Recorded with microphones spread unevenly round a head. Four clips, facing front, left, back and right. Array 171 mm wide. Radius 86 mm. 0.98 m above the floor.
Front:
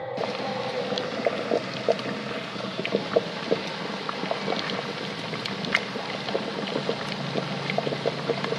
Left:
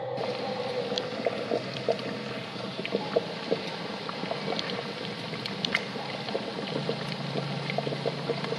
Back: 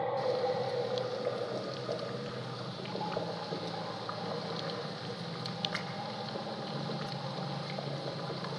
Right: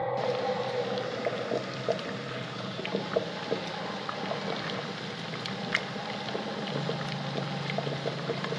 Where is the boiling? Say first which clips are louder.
Right 2 dB, front 2 dB; 15° left, 1.4 m.